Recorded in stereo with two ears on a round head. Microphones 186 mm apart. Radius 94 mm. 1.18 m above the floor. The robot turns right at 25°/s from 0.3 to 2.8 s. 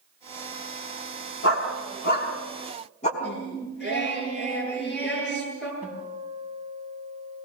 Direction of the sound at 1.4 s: 70° left (ahead or behind).